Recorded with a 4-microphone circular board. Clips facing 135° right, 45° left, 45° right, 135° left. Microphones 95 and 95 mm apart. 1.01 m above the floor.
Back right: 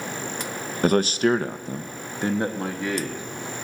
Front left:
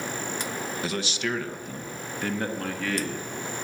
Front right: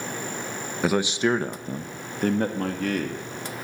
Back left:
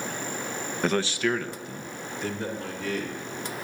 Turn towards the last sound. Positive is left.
turn(degrees=-65)